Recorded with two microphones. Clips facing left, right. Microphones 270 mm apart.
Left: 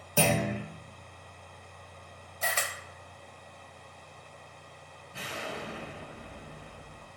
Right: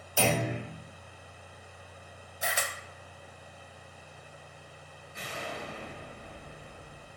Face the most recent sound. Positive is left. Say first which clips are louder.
# left 1 dB
turn(degrees=70)  # may be behind; listen again after turning